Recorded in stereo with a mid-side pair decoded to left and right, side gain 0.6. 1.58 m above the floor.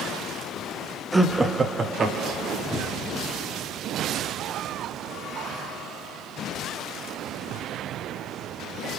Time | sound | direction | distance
1.1 | laughter | straight ahead | 0.6 m
2.7 | a cupboard door | 5° right | 0.8 m